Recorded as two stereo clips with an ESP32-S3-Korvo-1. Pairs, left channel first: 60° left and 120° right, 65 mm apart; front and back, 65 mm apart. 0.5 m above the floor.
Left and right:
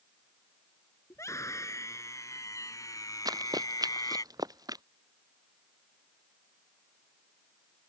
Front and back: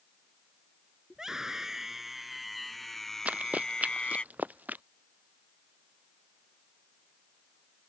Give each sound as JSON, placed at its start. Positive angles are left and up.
{"t": 1.1, "sound": "a scream", "azimuth_deg": 100}
{"t": 3.2, "sound": "running footsteps", "azimuth_deg": -110}